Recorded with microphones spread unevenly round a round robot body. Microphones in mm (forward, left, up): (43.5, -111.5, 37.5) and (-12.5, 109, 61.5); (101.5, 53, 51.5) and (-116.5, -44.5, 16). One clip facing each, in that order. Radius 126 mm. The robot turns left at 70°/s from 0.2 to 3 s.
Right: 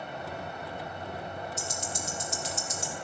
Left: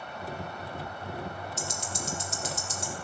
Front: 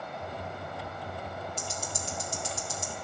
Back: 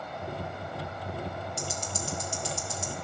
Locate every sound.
1.6 s ticking: 125° left, 3.5 m; by 3.0 s 30° left, 3.5 m